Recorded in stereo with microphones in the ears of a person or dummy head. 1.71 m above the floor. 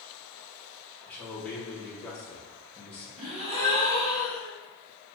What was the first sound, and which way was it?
A man speaking, 10° left (ahead or behind).